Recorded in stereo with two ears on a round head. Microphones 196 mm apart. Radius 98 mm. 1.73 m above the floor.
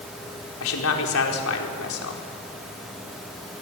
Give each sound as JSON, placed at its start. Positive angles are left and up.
{"t": 0.6, "sound": "a man speaking", "side_deg": 70, "distance_m": 4.5}